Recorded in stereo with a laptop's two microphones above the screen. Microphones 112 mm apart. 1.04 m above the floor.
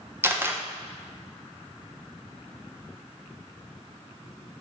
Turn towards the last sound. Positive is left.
turn(degrees=-20)  # may be behind; listen again after turning